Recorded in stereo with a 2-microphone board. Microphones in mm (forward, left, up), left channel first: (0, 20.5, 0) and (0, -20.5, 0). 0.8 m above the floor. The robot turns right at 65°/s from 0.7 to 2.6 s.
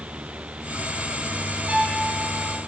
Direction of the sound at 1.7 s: 25° right (ahead or behind).